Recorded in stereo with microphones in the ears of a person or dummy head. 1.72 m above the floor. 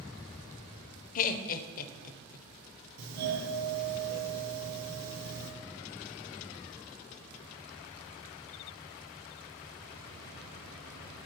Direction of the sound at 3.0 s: 60° right (ahead or behind).